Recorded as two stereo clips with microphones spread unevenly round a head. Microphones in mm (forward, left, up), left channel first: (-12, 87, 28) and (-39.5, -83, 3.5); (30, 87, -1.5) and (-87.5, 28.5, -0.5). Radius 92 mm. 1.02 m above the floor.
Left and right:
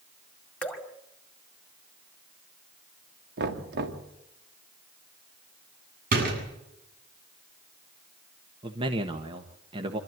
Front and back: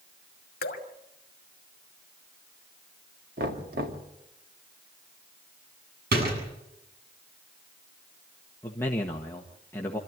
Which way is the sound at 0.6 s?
5° right.